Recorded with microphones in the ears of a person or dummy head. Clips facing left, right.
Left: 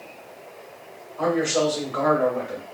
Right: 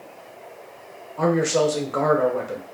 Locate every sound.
1.2 s a man speaking: 70° right (ahead or behind), 1.0 m